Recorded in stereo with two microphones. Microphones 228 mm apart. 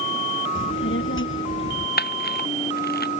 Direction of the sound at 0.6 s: 60° left (ahead or behind).